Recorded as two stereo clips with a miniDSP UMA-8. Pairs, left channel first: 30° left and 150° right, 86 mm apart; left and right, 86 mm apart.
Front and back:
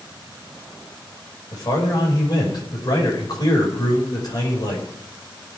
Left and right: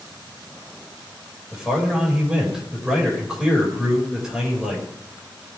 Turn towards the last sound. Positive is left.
turn(degrees=-5)